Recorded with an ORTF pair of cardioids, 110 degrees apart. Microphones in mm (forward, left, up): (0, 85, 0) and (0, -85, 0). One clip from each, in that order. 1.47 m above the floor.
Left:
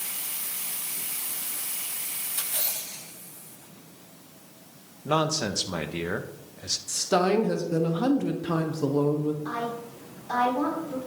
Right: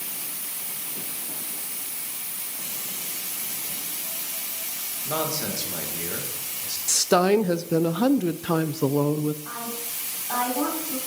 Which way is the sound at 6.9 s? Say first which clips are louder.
Right 4 dB; 50° right.